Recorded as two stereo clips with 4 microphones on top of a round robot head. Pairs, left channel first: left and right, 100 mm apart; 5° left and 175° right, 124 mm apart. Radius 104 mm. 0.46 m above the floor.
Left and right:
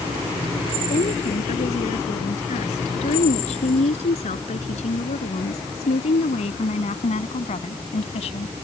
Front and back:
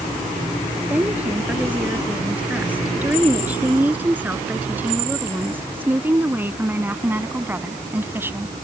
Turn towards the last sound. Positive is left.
turn(degrees=115)